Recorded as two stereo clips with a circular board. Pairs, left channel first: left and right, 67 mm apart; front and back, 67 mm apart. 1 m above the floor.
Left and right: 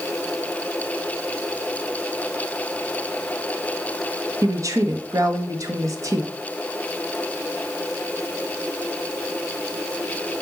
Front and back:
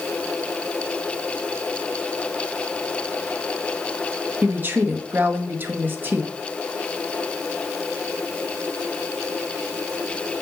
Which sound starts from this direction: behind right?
A woman speaking, at 4.4 s.